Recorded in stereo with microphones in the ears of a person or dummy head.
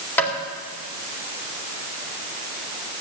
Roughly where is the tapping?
Centre.